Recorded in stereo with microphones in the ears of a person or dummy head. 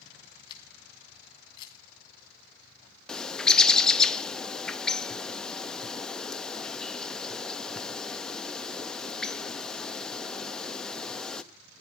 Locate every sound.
0.5 s a camera shutter: 25° left (ahead or behind), 2.5 m
3.1 s a bird: 5° left (ahead or behind), 0.7 m